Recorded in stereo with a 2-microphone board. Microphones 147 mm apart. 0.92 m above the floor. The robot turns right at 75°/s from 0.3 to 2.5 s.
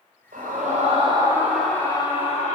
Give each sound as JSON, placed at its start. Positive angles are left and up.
{"t": 0.3, "sound": "a scream", "azimuth_deg": -100, "distance_m": 5.0}